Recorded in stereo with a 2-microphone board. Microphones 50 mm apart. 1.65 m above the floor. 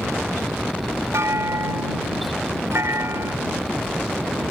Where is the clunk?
70° right (ahead or behind).